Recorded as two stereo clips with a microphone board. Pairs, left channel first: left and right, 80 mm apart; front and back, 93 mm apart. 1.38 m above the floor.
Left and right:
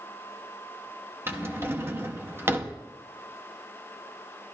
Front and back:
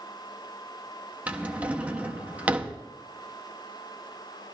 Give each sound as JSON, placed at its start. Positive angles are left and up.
{"t": 1.3, "sound": "a drawer", "azimuth_deg": -120, "distance_m": 0.8}